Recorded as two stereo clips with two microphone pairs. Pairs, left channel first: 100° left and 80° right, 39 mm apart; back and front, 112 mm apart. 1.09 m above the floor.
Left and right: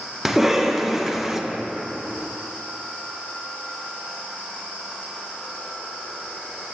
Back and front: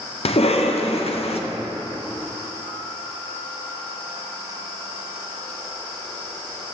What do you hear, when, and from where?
0.2 s a cough: 160° right, 0.7 m